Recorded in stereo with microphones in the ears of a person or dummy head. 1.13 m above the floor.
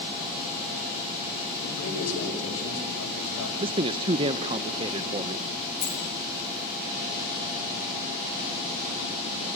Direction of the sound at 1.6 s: 85° left.